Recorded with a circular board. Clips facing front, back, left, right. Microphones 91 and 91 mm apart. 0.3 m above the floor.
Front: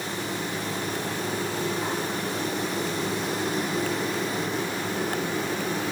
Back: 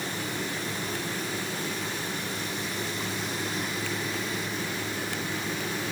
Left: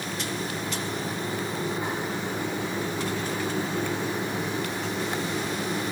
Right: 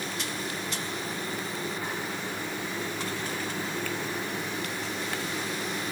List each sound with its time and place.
Only background noise.